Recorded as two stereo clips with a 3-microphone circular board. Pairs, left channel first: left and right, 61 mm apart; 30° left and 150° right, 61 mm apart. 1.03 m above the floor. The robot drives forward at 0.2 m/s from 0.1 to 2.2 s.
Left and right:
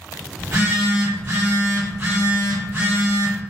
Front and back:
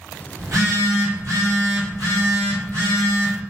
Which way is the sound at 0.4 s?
125° right.